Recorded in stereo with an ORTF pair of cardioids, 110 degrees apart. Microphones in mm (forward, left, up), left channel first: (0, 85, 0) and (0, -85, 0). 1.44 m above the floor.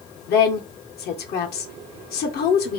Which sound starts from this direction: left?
A woman speaking, at 0.3 s.